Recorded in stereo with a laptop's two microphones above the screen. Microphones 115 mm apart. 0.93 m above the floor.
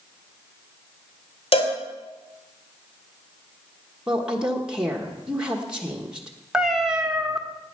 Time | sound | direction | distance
1.5 | a cowbell | 60° left (ahead or behind) | 2.5 m
4.1 | a woman speaking | 10° right (ahead or behind) | 1.2 m
6.5 | a cat meowing | 5° right (ahead or behind) | 1.0 m